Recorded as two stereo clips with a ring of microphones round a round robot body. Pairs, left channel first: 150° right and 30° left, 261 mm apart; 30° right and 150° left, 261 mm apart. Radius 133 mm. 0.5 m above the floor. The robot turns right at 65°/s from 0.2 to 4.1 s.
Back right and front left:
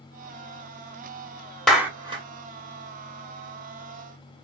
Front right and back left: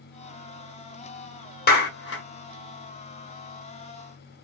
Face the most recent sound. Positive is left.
turn(degrees=95)